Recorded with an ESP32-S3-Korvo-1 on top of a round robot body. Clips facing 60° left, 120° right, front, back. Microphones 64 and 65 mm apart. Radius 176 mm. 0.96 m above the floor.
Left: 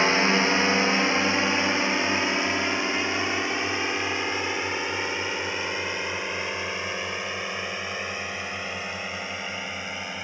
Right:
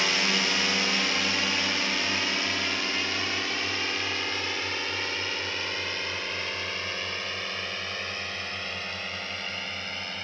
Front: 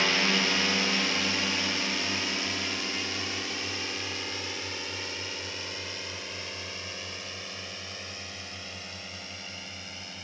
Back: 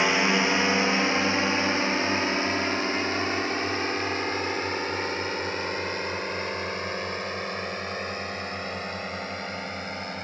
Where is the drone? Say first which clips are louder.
Left 6 dB, back 4 dB; 115° left; by 10.2 s 135° left.